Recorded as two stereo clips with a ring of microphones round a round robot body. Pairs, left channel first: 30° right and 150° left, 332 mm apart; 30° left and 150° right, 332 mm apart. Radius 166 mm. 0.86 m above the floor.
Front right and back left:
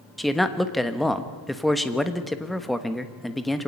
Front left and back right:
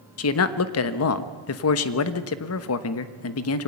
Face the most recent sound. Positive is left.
turn(degrees=60)